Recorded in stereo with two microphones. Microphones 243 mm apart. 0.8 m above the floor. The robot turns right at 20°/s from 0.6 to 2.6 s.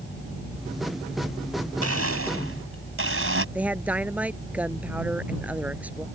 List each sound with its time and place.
1.8 s a blender: 70° right (ahead or behind); by 3.5 s 55° right (ahead or behind)
3.5 s a woman speaking: 5° right (ahead or behind)